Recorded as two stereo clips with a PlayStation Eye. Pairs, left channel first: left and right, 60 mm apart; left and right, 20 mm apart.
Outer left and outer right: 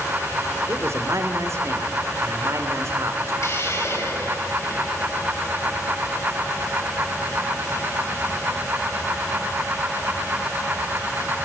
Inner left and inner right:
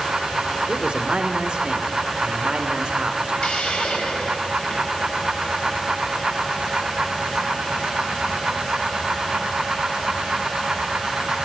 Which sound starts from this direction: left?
A hiss, at 3.4 s.